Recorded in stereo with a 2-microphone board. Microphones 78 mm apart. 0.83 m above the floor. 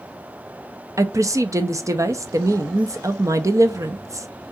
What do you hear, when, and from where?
1.0 s a woman speaking: 40° right (ahead or behind), 0.5 m